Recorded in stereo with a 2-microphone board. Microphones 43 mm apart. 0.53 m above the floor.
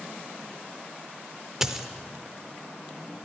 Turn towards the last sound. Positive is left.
turn(degrees=-10)  # may be behind; listen again after turning